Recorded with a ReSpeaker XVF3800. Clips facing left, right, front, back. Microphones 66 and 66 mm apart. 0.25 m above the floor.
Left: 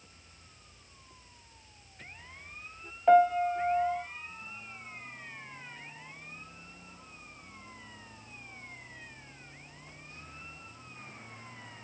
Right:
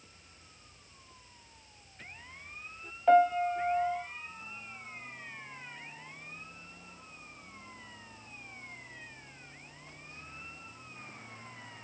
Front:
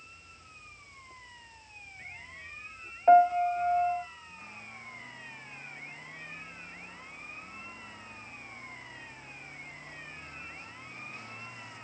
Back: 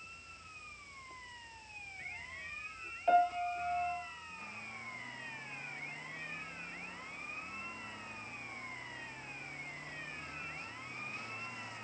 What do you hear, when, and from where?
3.1 s a piano: 15° left, 1.2 m